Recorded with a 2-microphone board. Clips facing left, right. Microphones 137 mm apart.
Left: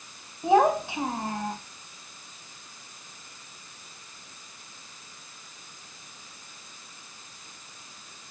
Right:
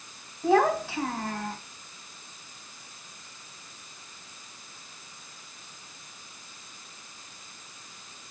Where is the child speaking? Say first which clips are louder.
Left 2 dB; 20° left (ahead or behind), 1.4 m.